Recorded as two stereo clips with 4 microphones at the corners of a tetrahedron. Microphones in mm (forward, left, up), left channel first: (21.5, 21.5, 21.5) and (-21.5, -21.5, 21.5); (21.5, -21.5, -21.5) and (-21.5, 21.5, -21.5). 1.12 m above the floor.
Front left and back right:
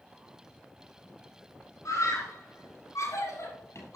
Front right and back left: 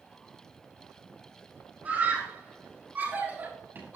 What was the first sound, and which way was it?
A scream, 75° left.